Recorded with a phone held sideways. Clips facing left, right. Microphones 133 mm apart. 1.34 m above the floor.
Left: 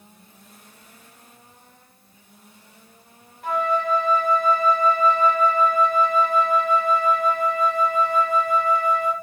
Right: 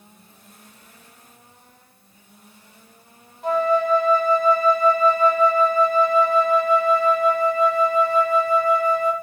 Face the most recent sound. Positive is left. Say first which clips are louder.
# right 4 dB
turn(degrees=-25)  # may be behind; listen again after turning